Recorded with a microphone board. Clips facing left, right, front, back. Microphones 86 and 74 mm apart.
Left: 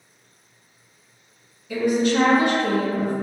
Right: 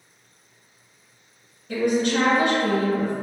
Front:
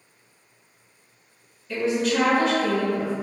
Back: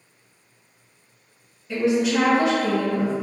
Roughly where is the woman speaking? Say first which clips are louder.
Left 1 dB, back 3 dB; right.